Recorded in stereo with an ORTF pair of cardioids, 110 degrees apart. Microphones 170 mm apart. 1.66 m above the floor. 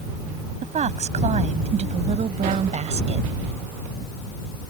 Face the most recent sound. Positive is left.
turn(degrees=-35)